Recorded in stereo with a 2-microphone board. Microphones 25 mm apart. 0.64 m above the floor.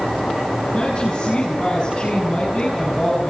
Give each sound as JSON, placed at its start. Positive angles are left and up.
{"t": 0.7, "sound": "a woman speaking", "side_deg": 25, "distance_m": 6.0}